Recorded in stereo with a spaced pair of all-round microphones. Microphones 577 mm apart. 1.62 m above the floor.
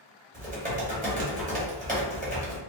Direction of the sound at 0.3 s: 15° right (ahead or behind).